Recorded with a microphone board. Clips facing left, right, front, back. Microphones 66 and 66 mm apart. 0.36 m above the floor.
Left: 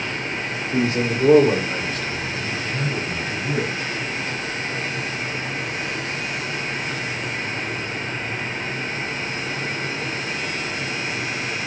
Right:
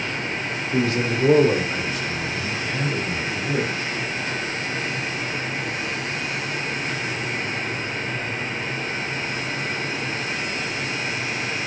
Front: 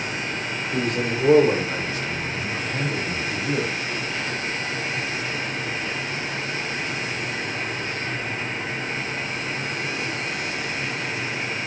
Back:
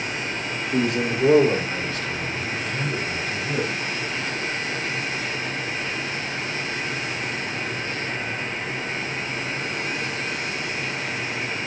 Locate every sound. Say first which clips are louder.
0.7 s a man speaking: left 1 dB, back 2 dB; 105° left, 1.3 m; by 3.7 s 45° right, 2.5 m